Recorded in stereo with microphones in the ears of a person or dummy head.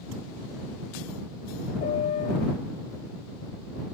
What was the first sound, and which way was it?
A piano, 35° left (ahead or behind).